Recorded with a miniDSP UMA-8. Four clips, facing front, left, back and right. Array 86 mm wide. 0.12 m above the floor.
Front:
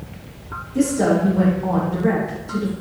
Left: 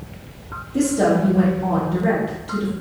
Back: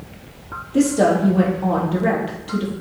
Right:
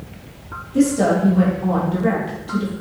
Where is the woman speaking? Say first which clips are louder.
Right 1 dB, back 2 dB; straight behind, 3.5 m.